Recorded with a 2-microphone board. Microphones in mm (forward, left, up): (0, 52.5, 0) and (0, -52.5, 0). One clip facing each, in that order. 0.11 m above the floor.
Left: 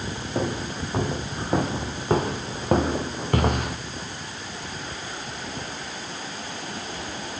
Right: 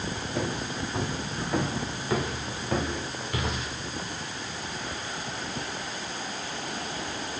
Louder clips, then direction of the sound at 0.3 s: Left 4 dB; 35° left (ahead or behind).